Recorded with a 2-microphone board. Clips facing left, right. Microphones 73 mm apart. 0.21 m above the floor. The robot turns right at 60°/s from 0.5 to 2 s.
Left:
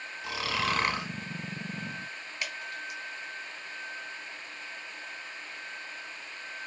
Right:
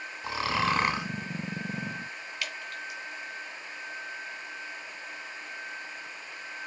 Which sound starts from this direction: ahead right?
Snoring, at 0.2 s.